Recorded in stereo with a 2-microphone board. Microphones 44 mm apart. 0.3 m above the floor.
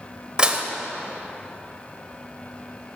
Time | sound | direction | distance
0.4 | dishes clattering | 20° right (ahead or behind) | 0.5 m